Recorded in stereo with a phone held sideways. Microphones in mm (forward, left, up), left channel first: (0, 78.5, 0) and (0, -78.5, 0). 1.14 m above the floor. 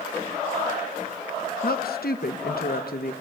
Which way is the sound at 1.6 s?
75° left (ahead or behind).